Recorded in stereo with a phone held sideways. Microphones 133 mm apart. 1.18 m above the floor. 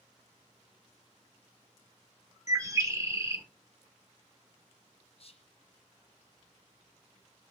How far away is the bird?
About 0.5 m.